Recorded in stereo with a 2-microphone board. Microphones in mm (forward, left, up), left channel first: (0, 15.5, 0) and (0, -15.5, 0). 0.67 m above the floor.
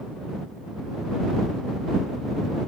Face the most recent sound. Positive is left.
No sound to turn to.